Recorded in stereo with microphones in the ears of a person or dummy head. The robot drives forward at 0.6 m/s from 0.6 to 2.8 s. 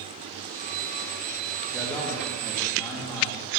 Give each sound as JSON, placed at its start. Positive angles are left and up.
{"t": 1.7, "sound": "a man speaking", "side_deg": 10, "distance_m": 1.6}